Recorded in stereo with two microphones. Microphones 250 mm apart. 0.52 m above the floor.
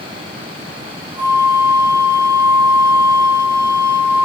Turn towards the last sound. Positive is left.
turn(degrees=50)  # may be behind; listen again after turning